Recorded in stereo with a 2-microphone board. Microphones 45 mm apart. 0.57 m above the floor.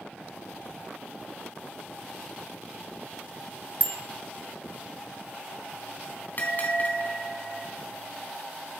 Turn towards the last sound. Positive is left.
turn(degrees=45)  # may be behind; listen again after turning